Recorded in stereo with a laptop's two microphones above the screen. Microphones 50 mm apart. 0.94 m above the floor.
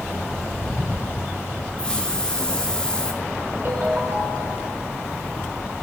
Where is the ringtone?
45° right (ahead or behind), 1.9 m.